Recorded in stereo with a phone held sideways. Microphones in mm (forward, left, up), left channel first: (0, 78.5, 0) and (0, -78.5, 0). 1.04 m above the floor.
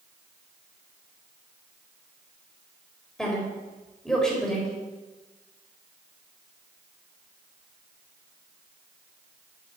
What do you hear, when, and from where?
3.2 s a woman speaking: 5° left (ahead or behind), 4 m